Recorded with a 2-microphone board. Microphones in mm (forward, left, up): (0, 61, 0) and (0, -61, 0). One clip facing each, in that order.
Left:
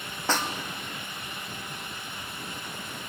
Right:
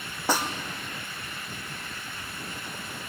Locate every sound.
0.3 s a snare drum: 10° right (ahead or behind), 2 m